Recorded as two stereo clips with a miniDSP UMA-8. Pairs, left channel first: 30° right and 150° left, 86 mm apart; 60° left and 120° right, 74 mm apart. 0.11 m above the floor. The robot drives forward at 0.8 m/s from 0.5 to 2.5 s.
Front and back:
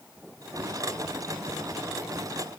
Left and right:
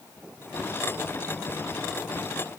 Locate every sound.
Only background noise.